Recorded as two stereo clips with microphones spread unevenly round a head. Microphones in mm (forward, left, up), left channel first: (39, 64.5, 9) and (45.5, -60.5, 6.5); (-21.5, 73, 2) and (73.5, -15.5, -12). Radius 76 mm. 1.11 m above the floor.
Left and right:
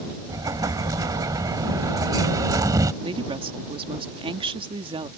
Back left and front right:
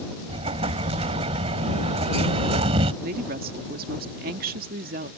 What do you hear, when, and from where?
0.3 s an explosion: 45° right
3.0 s a woman speaking: 40° right